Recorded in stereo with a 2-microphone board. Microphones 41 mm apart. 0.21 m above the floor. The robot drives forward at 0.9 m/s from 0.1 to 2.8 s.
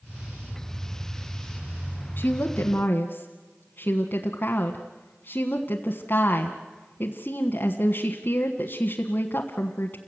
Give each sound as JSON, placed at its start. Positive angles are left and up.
{"t": 2.2, "sound": "a woman speaking", "side_deg": 45, "distance_m": 1.5}